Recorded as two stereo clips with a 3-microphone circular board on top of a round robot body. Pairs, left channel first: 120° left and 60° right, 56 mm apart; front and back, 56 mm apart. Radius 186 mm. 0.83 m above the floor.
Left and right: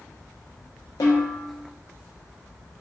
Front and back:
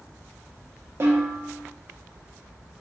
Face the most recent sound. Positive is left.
turn(degrees=130)